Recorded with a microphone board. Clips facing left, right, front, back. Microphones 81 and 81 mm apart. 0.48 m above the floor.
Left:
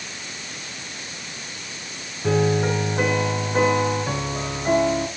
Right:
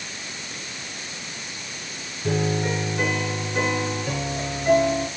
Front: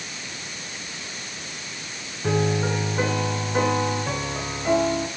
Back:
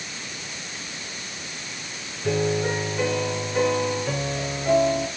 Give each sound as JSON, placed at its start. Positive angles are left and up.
{"t": 2.2, "sound": "a piano", "azimuth_deg": 45, "distance_m": 5.0}